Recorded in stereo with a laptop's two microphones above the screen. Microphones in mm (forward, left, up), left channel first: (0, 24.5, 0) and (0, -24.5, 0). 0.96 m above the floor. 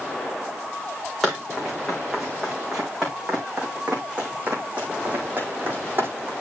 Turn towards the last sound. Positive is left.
turn(degrees=-45)  # may be behind; listen again after turning